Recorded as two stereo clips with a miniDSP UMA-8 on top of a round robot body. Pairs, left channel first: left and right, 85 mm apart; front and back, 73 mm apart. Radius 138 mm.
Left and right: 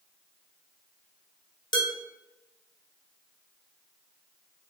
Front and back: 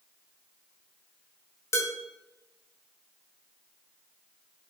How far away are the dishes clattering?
About 3 m.